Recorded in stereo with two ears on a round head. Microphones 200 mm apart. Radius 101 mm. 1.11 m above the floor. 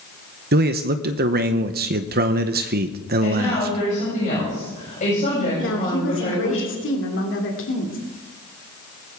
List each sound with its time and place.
0.5 s a man speaking: 45° right (ahead or behind), 0.8 m
3.2 s a woman speaking: 35° left (ahead or behind), 7.5 m
5.6 s a woman speaking: 60° left (ahead or behind), 2.5 m